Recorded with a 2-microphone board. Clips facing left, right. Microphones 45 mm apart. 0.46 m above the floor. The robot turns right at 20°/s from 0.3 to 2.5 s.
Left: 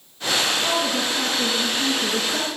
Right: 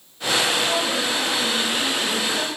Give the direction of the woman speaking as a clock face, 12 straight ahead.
11 o'clock.